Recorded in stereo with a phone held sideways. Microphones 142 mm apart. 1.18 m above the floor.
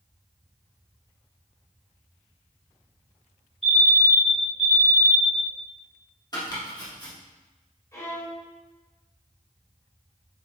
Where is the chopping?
30° left (ahead or behind), 2 m.